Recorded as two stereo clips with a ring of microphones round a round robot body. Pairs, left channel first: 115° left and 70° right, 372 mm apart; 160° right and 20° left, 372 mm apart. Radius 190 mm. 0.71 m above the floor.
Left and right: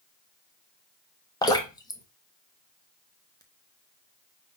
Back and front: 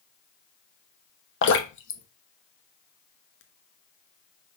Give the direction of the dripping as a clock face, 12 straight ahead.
6 o'clock.